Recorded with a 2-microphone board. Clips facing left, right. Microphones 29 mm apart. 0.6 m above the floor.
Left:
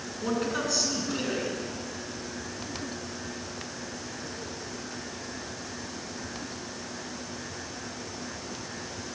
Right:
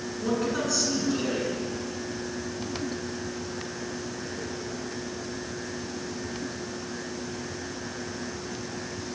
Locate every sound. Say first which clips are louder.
0.2 s a man speaking: right 1 dB; 10° left (ahead or behind), 8 m